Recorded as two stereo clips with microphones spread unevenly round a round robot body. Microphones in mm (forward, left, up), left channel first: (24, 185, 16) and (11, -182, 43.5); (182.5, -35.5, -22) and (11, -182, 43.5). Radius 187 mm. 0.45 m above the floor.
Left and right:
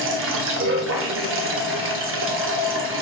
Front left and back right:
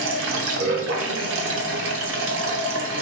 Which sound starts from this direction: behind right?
Running water, at 0.0 s.